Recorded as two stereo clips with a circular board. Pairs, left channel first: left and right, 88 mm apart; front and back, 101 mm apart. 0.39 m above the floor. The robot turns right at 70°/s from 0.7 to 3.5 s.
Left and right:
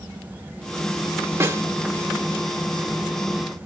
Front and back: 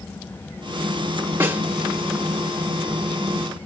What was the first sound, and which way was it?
A snare drum, 125° right.